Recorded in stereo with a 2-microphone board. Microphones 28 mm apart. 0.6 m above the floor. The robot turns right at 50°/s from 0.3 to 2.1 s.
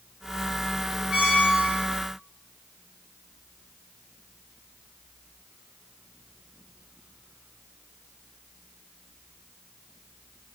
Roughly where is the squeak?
Right.